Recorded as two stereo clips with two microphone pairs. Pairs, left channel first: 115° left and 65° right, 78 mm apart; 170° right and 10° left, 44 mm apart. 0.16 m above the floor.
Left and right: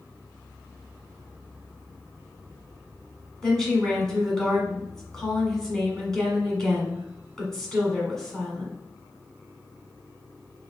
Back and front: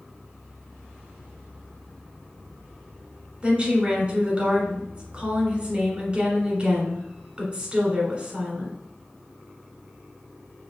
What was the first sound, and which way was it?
A woman speaking, 35° left.